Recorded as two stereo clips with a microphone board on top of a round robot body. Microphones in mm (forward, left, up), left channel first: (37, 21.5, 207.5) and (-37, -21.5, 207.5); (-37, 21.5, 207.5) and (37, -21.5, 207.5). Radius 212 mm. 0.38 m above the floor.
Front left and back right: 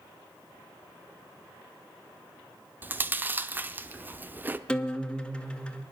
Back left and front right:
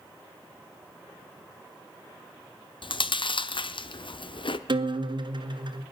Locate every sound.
2.8 s chewing: 140° left, 0.9 m
4.7 s a guitar: 50° right, 1.7 m